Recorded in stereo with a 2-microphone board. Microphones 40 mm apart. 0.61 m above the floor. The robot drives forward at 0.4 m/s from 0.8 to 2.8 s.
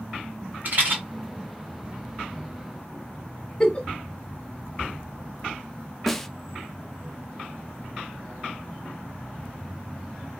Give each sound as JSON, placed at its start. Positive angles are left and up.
{"t": 0.7, "sound": "a rattle", "side_deg": -45, "distance_m": 2.0}
{"t": 3.6, "sound": "a giggle", "side_deg": 20, "distance_m": 0.8}
{"t": 6.1, "sound": "a snare drum", "side_deg": 5, "distance_m": 0.5}